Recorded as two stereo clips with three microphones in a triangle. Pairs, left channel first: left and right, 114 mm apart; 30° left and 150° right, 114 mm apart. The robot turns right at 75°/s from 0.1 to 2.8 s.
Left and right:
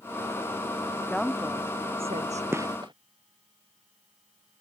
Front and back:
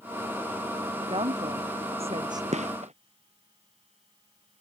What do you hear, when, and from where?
1.1 s a woman speaking: 170° left; by 2.4 s 90° right
2.5 s a gunshot: 160° right; by 2.9 s 140° right